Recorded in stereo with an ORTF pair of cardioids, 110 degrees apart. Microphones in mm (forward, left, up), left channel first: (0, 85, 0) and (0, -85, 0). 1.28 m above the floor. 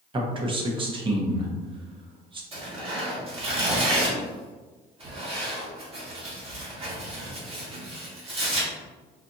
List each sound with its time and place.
0.1 s a man speaking: 30° right, 1.0 m
2.5 s tearing paper: 35° right, 1.5 m